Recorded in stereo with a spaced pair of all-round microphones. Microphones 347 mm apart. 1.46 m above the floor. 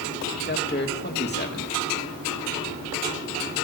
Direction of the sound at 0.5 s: 30° left (ahead or behind).